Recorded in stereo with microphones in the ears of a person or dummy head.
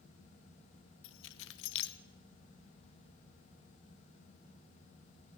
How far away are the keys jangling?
About 0.7 m.